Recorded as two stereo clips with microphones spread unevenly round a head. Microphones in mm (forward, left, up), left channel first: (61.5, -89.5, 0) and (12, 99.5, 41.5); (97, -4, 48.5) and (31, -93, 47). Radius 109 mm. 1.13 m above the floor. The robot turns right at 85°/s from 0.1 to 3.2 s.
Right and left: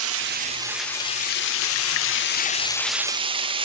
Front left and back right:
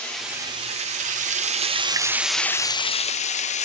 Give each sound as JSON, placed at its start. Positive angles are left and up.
{"t": 0.0, "sound": "running water", "azimuth_deg": 135, "distance_m": 0.7}